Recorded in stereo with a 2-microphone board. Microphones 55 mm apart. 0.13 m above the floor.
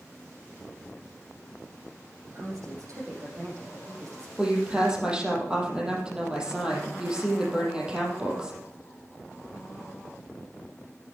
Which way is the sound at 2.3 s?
65° right (ahead or behind).